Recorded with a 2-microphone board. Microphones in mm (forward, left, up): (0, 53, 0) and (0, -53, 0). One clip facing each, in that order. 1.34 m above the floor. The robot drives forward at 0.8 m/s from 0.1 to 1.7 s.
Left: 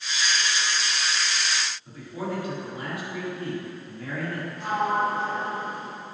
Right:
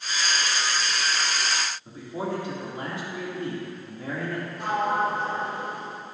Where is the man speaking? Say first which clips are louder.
Right 2 dB; 30° right (ahead or behind), 2.5 m.